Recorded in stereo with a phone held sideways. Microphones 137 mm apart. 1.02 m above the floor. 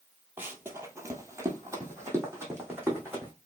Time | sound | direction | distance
0.4 | running footsteps | 15° right (ahead or behind) | 1.1 m